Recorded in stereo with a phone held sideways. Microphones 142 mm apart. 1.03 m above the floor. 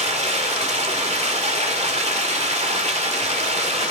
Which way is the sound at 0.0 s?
50° right (ahead or behind).